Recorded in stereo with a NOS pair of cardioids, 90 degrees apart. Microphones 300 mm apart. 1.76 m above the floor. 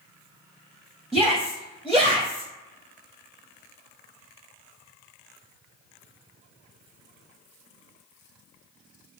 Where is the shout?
Straight ahead, 0.7 m.